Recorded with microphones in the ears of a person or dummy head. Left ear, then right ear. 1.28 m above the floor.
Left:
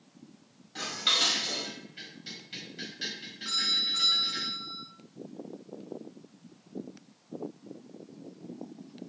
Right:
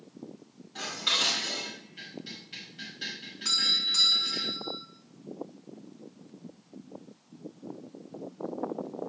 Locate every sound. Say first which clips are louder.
0.8 s dishes clattering: left 1 dB; 10° left (ahead or behind), 4.5 m
3.5 s a doorbell: right 2 dB; 55° right (ahead or behind), 3.5 m